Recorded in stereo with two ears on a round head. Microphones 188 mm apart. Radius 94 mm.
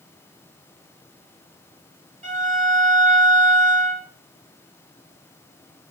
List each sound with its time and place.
2.2 s a violin: 35° right (ahead or behind), 1.8 m